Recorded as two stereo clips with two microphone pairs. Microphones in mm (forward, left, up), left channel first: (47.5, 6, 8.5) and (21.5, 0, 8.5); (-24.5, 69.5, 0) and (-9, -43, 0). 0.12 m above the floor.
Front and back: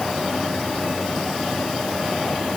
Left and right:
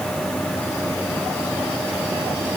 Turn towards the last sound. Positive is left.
No sound to turn to.